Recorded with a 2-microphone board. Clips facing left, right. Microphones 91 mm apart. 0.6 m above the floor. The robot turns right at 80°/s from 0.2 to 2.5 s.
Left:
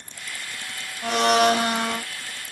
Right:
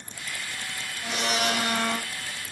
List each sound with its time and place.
1.0 s a blender: 100° left, 0.6 m; by 2.0 s straight behind, 0.6 m